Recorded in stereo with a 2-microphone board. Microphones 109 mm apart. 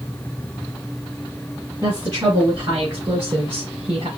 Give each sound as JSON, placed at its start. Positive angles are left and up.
{"t": 1.8, "sound": "a woman speaking", "side_deg": -30, "distance_m": 2.0}